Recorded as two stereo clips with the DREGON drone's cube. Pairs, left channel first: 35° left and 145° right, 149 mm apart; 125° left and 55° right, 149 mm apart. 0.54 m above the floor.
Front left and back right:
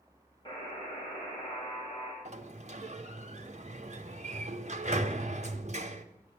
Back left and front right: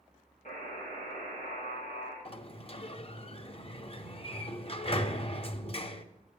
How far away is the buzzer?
About 5.5 m.